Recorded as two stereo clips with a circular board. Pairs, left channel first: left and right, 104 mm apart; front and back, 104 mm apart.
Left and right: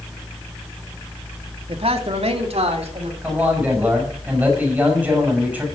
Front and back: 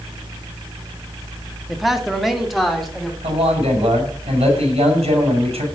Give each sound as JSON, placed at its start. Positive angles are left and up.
{"t": 1.7, "sound": "a man speaking", "azimuth_deg": -90, "distance_m": 1.6}
{"t": 3.2, "sound": "a man speaking", "azimuth_deg": -165, "distance_m": 6.0}